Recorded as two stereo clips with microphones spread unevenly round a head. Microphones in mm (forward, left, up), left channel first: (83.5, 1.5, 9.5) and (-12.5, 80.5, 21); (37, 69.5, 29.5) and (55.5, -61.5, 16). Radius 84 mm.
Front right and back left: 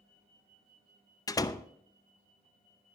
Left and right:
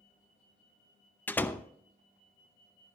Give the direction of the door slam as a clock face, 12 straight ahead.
11 o'clock.